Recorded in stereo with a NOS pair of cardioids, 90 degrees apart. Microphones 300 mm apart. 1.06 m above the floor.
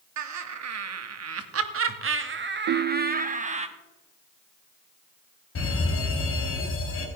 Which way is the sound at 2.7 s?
50° right.